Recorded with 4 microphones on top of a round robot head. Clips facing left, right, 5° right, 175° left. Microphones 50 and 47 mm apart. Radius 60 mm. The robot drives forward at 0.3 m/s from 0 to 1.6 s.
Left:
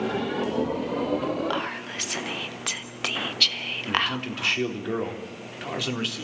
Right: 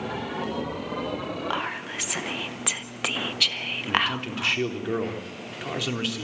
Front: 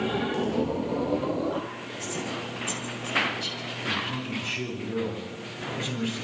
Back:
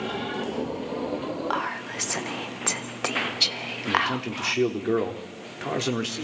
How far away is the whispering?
About 1.2 m.